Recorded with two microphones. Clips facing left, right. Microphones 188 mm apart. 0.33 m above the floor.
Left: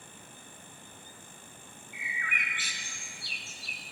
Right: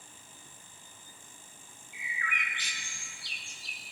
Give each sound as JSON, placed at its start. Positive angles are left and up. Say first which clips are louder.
{"t": 1.9, "sound": "a bird", "louder": "right 1 dB", "side_deg": 5, "distance_m": 1.2}